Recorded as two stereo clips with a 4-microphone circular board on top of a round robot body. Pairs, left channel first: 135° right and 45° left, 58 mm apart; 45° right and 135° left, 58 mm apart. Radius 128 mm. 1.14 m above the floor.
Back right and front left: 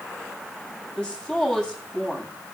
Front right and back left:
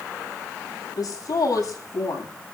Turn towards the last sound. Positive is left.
turn(degrees=-60)